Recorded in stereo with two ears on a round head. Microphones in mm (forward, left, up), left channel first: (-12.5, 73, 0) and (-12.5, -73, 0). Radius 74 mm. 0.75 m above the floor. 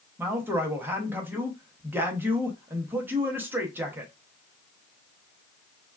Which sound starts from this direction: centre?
A woman speaking, at 0.2 s.